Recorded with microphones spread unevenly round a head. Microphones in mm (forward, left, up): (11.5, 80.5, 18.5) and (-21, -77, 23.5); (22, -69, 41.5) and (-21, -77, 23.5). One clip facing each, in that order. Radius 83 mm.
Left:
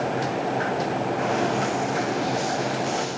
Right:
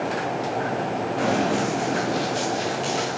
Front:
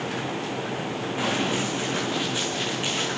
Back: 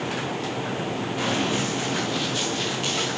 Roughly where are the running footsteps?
Ahead right.